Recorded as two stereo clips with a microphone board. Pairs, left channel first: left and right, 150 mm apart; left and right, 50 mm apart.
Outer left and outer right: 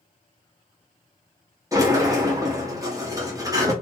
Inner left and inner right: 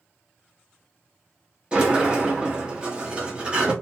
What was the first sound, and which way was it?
A sliding door, 25° right (ahead or behind).